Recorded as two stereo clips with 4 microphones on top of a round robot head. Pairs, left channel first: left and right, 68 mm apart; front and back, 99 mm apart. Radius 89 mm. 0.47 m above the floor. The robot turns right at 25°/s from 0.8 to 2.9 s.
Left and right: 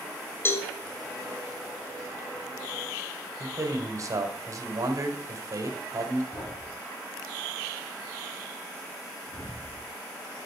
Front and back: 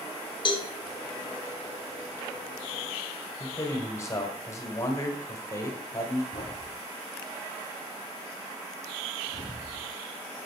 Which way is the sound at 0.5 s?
40° left.